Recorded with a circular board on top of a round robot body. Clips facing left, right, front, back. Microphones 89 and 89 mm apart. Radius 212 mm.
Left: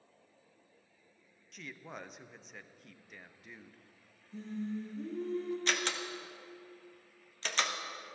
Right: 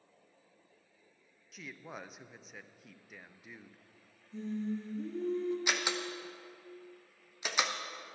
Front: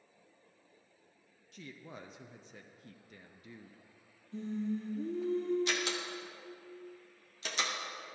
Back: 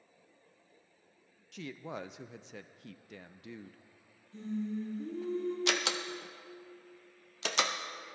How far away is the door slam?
About 0.7 m.